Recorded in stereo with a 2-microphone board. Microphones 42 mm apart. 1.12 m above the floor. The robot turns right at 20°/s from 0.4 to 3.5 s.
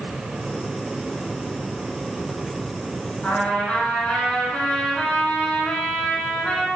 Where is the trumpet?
35° left (ahead or behind), 6 m; by 6.7 s 30° left (ahead or behind), 6 m.